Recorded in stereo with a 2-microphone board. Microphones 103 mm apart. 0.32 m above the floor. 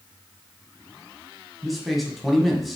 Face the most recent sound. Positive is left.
turn(degrees=0)  # may be behind; listen again after turning